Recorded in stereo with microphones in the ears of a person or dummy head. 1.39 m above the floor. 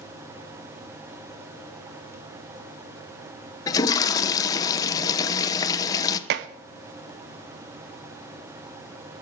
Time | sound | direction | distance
3.7 | a toilet flushing | 20° left (ahead or behind) | 1.1 m
6.3 | dishes clattering | 55° right (ahead or behind) | 0.8 m